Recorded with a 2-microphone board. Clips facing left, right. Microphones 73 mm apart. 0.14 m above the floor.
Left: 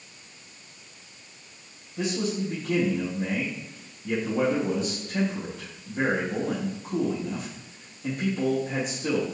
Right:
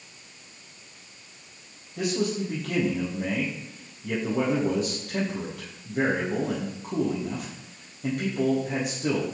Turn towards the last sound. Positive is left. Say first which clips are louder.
# right 1 dB
turn(degrees=-60)  # may be behind; listen again after turning